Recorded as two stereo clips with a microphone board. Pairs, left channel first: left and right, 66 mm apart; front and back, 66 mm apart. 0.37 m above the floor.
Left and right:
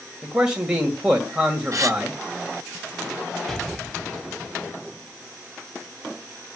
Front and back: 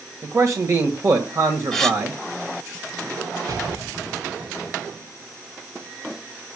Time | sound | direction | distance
0.2 | a man speaking | 165° right | 1.6 m
1.7 | a gasp | 85° right | 1.2 m
3.5 | an explosion | 175° left | 1.6 m